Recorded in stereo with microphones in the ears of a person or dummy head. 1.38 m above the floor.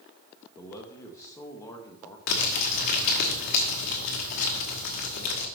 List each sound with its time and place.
0.6 s a man speaking: 20° left (ahead or behind), 1.3 m
2.3 s crumpling: 50° left (ahead or behind), 1.3 m